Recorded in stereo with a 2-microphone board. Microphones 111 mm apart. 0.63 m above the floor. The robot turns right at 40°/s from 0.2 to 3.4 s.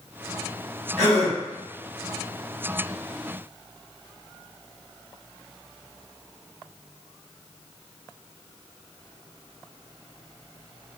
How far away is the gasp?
About 1.9 m.